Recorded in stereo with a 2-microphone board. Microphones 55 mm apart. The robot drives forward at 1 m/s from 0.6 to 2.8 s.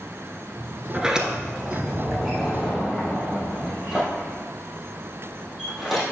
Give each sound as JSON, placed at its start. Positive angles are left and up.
{"t": 0.9, "sound": "a sliding door", "side_deg": -15, "distance_m": 0.8}